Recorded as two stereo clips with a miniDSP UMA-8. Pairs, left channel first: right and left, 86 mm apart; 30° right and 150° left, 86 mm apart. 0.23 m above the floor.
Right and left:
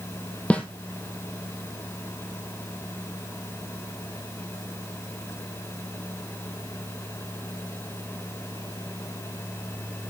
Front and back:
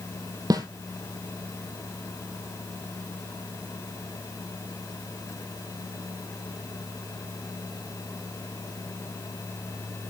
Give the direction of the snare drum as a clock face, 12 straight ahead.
6 o'clock.